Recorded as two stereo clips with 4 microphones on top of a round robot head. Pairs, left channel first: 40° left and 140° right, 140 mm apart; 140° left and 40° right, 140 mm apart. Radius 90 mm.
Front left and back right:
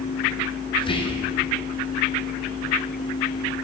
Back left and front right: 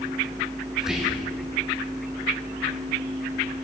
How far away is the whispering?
About 0.6 m.